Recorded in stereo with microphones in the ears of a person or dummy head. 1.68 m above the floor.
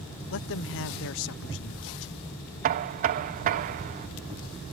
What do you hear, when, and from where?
0.3 s a man speaking: 75° left (ahead or behind)
2.6 s knocking: 45° right (ahead or behind)